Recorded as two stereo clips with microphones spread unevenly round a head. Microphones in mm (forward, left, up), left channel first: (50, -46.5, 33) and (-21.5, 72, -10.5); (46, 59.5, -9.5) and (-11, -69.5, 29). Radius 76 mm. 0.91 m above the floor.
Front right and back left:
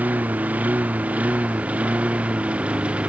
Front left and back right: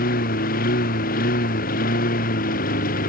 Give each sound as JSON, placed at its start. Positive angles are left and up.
{"t": 0.0, "sound": "a lawn mower", "azimuth_deg": 40}